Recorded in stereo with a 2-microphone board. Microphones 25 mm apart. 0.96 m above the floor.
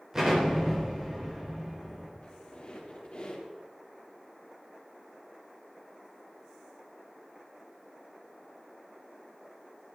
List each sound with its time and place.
0.1 s an explosion: 20° right (ahead or behind), 4 m
2.2 s a squeak: 45° left (ahead or behind), 3.5 m